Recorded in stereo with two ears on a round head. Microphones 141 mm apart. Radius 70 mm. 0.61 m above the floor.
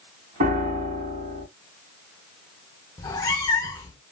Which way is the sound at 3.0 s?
20° left (ahead or behind).